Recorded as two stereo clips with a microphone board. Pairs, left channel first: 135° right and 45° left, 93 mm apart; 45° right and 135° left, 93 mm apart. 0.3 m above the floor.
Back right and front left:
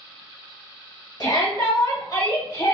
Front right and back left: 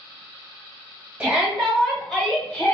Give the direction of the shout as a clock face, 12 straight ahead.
5 o'clock.